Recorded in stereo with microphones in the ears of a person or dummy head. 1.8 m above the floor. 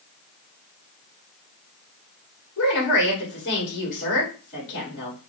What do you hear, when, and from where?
2.6 s a woman speaking: 65° left (ahead or behind), 1.9 m